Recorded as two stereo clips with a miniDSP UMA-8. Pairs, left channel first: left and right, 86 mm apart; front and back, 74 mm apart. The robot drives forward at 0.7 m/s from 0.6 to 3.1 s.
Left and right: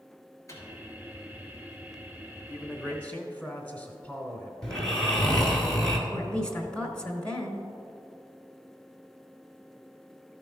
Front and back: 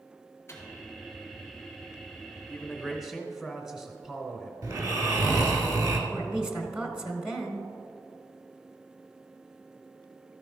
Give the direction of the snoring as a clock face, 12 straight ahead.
6 o'clock.